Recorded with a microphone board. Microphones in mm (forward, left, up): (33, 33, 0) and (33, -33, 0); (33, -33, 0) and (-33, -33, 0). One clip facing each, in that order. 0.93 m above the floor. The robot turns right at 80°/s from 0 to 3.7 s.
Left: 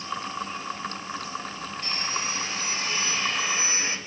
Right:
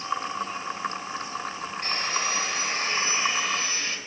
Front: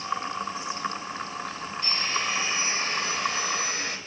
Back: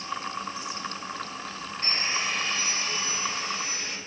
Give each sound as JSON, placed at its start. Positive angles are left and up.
{"t": 1.8, "sound": "sawing", "azimuth_deg": -130, "distance_m": 1.5}